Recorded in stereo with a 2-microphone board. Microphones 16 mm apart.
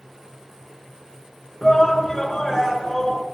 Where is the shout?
35° left (ahead or behind), 5.5 m; by 3.2 s 25° left (ahead or behind), 5.5 m.